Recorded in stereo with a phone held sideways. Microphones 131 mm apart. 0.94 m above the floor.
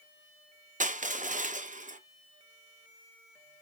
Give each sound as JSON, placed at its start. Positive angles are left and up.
{"t": 0.8, "sound": "crushing", "side_deg": -80, "distance_m": 0.5}